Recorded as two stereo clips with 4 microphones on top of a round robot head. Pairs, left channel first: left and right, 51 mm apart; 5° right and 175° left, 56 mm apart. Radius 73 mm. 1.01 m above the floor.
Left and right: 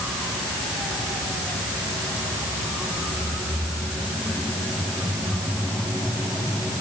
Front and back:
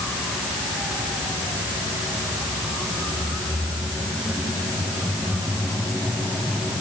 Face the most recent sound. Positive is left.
No sound to turn to.